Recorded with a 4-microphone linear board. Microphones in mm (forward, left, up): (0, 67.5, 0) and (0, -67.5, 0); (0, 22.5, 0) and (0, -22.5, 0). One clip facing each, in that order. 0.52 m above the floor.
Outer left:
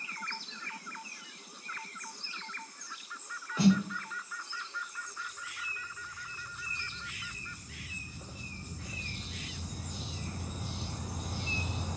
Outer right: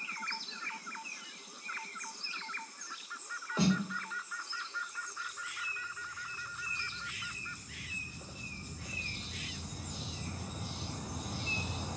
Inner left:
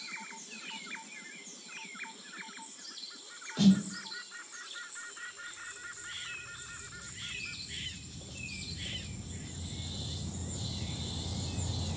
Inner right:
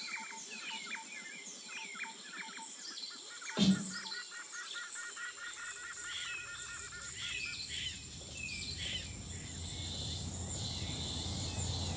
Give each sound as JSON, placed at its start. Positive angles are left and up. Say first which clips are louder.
{"t": 3.6, "sound": "a snare drum", "louder": "outer left 5 dB, inner left 6 dB", "side_deg": -25, "distance_m": 0.8}